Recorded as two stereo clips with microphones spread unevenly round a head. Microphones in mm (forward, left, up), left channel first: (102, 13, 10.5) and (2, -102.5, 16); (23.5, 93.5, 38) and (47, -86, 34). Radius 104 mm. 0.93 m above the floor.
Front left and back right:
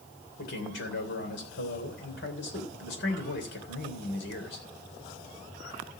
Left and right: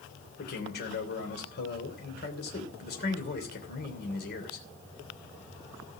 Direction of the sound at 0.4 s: 60° left.